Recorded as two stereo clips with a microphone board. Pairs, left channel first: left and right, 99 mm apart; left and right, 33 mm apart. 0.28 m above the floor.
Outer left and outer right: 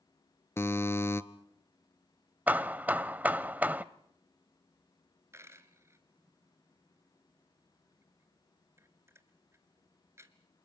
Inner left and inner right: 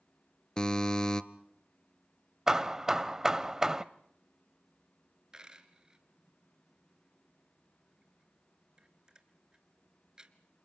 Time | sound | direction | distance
0.6 | a buzzer | 25° left (ahead or behind) | 0.8 m
2.5 | hammering | 15° right (ahead or behind) | 0.6 m
5.3 | a dropped coin | 25° right (ahead or behind) | 1.5 m